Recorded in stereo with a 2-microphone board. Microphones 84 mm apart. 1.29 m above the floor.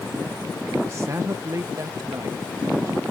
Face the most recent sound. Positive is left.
turn(degrees=-50)  # may be behind; listen again after turning